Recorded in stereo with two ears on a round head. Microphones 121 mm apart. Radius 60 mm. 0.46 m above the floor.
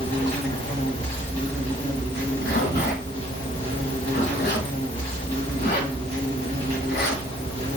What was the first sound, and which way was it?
An insect, 45° left (ahead or behind).